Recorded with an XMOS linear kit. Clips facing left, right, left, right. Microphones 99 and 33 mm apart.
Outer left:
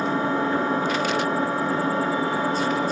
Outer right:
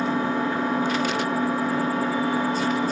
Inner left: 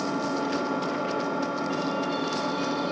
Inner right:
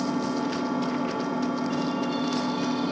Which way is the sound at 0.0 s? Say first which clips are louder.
Outer left 1 dB, inner right 1 dB; 30° left (ahead or behind).